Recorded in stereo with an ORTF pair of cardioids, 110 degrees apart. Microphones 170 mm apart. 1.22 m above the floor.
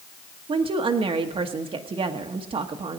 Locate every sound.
0.5 s a woman speaking: 35° right, 1.2 m